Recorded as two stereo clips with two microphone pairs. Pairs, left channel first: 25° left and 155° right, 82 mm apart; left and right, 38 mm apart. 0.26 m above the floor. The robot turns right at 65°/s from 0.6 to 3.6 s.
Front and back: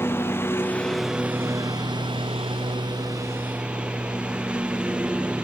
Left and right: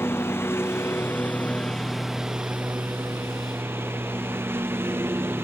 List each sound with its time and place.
0.0 s a lawn mower: 90° left; by 5.5 s 75° right